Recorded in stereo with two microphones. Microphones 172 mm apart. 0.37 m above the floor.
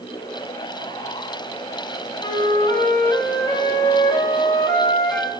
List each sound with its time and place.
2.2 s a flute: 15° left (ahead or behind), 1.4 m